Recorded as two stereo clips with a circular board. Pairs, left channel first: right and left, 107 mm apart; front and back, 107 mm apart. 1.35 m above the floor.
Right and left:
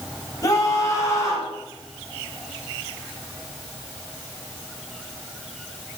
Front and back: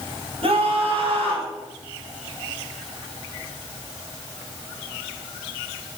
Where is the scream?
150° right, 8 m.